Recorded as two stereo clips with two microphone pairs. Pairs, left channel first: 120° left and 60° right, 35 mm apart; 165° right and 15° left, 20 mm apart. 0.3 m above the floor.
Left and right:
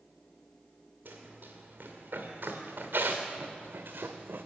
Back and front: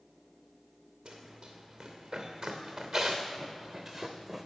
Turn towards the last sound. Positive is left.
turn(degrees=-60)